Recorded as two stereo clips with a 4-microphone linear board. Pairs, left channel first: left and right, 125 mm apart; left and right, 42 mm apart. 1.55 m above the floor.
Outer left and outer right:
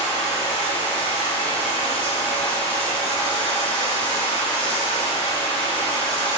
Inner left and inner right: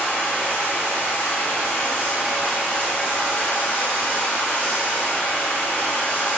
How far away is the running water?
About 1.4 m.